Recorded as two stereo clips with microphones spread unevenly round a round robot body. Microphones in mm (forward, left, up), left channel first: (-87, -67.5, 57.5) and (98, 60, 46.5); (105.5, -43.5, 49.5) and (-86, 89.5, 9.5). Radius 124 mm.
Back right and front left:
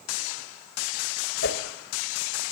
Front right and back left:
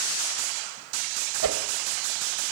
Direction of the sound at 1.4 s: 170° left.